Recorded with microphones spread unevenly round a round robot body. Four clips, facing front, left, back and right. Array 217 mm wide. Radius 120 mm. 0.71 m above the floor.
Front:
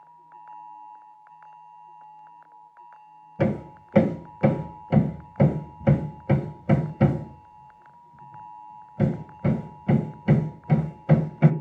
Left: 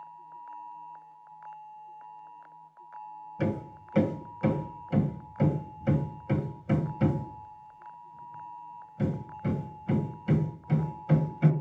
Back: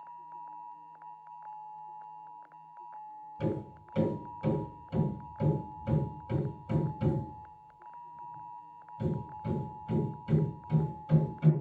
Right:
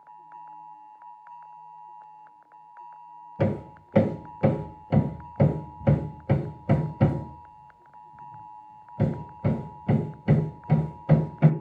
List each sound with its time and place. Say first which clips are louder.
3.4 s hammering: right 4 dB, front 9 dB; 30° right, 1.4 m